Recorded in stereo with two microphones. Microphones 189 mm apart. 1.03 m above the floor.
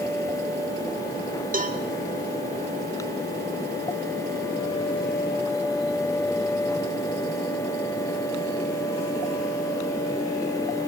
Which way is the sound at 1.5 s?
45° right (ahead or behind).